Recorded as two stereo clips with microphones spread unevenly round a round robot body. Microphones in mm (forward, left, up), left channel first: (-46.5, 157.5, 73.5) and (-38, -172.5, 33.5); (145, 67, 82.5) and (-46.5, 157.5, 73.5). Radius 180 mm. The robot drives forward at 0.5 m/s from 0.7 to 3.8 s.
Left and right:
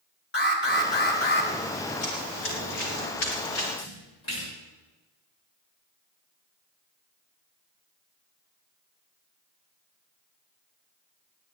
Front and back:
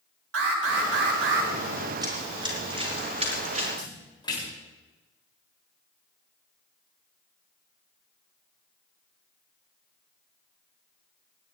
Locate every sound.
0.3 s an alarm: 155° left, 4 m
2.0 s running footsteps: 85° left, 7.5 m; by 3.7 s 100° left, 5.5 m
3.8 s a splash: 45° left, 7.5 m